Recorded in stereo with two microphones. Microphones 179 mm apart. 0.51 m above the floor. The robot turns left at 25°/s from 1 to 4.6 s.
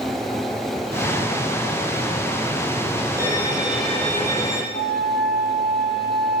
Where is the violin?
165° right, 3.5 m; by 4.6 s 160° left, 3.5 m.